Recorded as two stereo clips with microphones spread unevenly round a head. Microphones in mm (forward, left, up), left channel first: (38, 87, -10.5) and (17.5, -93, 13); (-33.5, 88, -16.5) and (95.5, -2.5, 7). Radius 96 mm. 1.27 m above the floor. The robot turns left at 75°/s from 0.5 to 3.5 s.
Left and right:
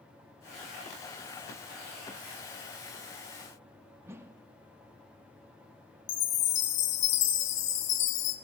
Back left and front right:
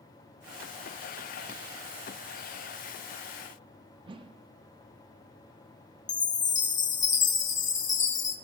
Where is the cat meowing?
No cat meowing in this recording.